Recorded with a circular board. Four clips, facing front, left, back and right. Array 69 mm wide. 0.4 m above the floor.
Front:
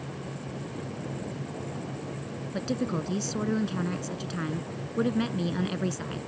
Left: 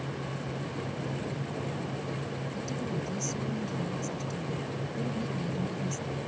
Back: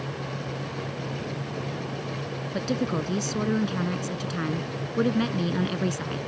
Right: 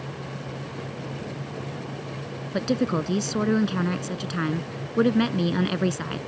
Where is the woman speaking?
100° right.